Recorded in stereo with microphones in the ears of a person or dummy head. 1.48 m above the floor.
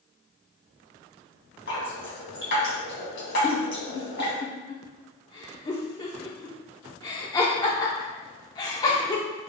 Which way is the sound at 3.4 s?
15° left (ahead or behind).